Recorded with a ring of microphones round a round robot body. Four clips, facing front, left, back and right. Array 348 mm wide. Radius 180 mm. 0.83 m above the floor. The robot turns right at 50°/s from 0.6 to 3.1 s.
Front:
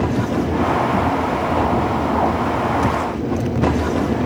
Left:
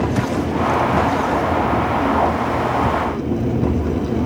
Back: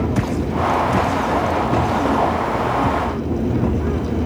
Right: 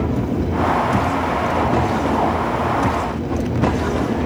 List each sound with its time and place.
Only background noise.